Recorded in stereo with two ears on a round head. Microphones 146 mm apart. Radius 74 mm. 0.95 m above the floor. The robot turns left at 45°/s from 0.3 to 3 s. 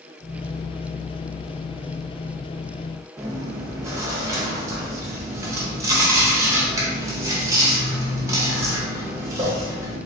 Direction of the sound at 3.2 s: 20° right (ahead or behind).